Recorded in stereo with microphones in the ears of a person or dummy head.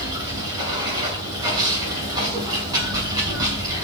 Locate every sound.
0.0 s running water: 25° right (ahead or behind), 6.5 m